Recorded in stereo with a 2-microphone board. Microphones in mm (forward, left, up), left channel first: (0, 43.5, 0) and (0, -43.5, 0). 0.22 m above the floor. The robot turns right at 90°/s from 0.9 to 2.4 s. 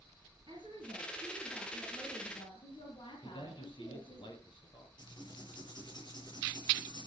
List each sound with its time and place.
0.5 s a woman speaking: 65° right, 6.5 m; by 4.2 s 70° left, 6.5 m
3.2 s a man speaking: 70° left (ahead or behind), 6 m
5.0 s writing: 55° left (ahead or behind), 6.5 m